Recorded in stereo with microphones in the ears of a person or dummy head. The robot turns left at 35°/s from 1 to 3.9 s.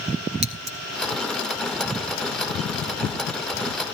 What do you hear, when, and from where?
0.4 s scissors: 30° right (ahead or behind), 1.3 m